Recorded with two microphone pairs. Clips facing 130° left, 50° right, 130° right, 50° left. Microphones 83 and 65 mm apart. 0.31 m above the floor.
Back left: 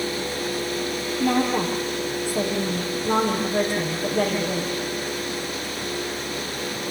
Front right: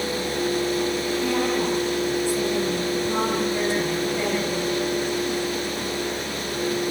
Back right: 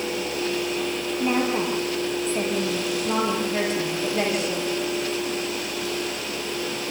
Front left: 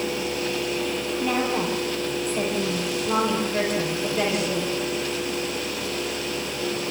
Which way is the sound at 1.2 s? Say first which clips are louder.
Back left 4 dB, back right 2 dB; 165° left.